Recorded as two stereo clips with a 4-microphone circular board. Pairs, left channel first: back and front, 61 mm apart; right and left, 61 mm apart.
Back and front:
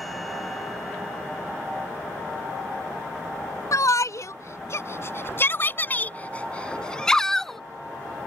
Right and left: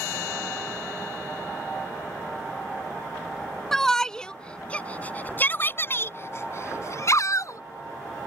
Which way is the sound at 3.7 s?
175° right.